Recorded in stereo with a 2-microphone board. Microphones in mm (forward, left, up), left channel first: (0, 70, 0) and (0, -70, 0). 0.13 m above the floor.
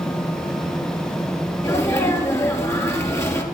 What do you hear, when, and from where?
1.6 s a sneeze: 20° left (ahead or behind), 2 m